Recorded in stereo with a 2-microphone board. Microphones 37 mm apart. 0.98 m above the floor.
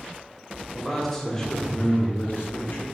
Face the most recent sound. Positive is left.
turn(degrees=60)  # may be behind; listen again after turning